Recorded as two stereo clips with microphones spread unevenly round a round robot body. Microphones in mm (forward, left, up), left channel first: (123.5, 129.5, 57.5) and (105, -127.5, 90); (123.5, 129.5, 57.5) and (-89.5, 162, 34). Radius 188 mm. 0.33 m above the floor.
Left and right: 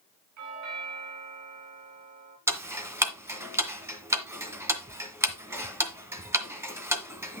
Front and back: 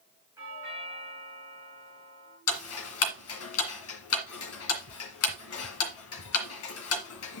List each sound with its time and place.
0.4 s a doorbell: 110° right, 5 m
2.5 s ticking: 10° right, 1.9 m